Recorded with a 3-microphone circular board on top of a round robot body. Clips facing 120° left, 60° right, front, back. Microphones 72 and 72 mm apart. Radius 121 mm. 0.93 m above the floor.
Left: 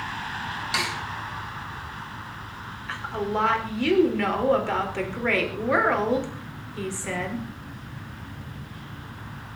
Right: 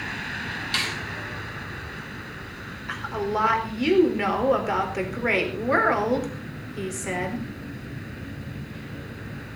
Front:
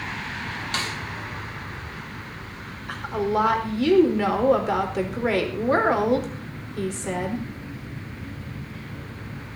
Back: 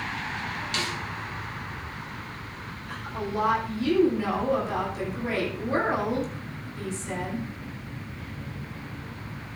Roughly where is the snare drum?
Ahead left.